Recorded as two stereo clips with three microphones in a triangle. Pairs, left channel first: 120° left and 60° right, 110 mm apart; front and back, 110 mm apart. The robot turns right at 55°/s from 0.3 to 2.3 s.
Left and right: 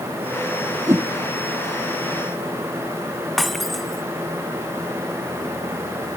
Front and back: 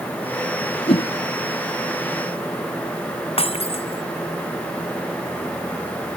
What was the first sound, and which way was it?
A whoosh, 5° left.